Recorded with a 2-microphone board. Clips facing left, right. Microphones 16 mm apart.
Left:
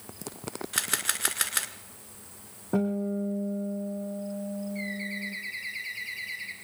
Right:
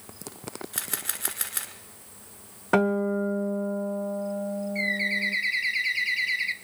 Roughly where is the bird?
Right.